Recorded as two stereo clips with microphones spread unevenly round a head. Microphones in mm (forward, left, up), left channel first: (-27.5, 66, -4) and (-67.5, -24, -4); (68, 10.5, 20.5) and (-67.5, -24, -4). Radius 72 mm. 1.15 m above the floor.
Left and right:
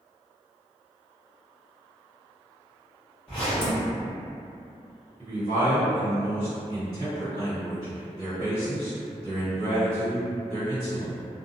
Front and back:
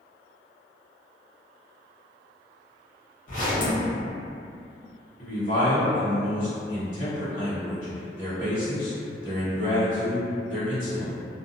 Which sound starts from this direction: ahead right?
A man speaking, at 5.2 s.